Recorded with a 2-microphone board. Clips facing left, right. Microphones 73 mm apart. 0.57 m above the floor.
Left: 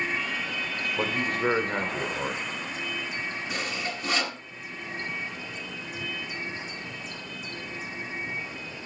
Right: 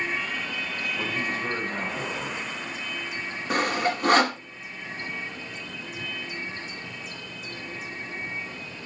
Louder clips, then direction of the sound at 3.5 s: Right 13 dB; 55° right (ahead or behind).